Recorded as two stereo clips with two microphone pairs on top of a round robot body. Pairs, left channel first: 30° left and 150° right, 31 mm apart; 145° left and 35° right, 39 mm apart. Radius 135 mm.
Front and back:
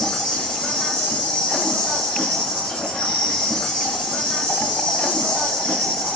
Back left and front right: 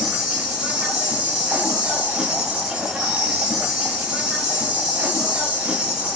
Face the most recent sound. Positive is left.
turn(degrees=30)